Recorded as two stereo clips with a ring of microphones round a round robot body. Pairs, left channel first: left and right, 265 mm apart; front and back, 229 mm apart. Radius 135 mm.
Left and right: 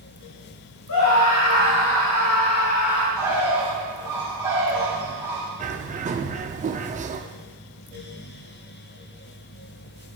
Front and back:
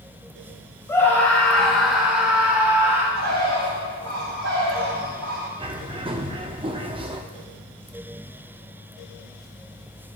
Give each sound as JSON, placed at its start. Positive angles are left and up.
{"t": 0.9, "sound": "a scream", "azimuth_deg": 75, "distance_m": 2.0}
{"t": 3.1, "sound": "a bird", "azimuth_deg": -170, "distance_m": 4.0}
{"t": 5.6, "sound": "a bird", "azimuth_deg": -130, "distance_m": 0.7}